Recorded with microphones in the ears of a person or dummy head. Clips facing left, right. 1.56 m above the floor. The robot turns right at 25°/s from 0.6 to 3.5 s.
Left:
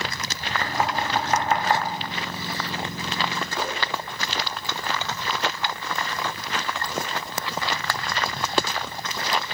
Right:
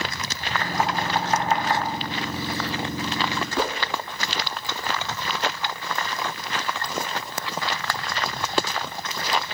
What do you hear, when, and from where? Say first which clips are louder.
0.6 s knocking: even; 65° left (ahead or behind), 0.9 m; by 1.8 s 45° left (ahead or behind), 0.9 m
3.6 s a whoosh: right 5 dB; 55° right (ahead or behind), 0.6 m